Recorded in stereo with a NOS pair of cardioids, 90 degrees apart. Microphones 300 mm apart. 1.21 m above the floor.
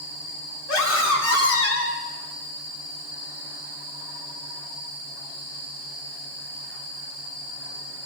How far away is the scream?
About 4 m.